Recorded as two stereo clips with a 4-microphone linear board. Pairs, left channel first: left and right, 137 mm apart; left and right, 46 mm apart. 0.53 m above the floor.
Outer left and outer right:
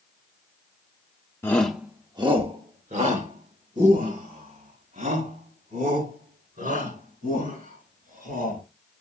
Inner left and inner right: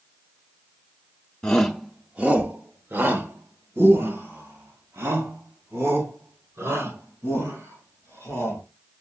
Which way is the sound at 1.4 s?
20° left (ahead or behind).